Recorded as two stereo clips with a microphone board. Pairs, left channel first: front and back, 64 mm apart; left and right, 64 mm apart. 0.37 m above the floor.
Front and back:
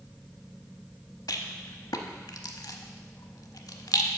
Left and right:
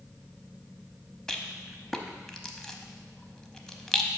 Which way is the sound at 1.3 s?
10° left.